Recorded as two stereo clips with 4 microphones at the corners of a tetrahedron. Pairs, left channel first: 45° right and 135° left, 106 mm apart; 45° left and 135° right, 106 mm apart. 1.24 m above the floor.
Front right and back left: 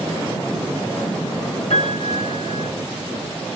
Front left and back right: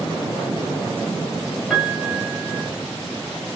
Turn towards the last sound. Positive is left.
turn(degrees=-45)